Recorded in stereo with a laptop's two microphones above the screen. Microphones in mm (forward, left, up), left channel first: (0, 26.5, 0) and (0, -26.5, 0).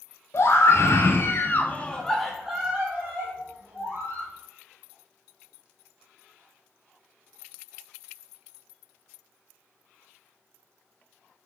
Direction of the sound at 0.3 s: 55° left (ahead or behind).